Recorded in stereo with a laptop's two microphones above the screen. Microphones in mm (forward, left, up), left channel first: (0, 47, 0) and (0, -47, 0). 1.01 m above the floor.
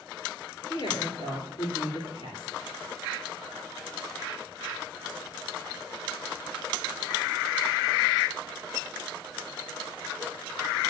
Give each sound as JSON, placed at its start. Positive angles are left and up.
{"t": 0.7, "sound": "a woman speaking", "side_deg": 60, "distance_m": 2.5}